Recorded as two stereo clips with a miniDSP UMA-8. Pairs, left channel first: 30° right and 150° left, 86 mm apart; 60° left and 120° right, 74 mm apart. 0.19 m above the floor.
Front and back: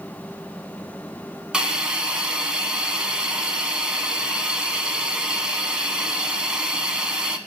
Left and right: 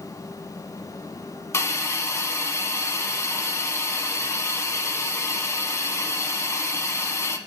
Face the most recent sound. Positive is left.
turn(degrees=75)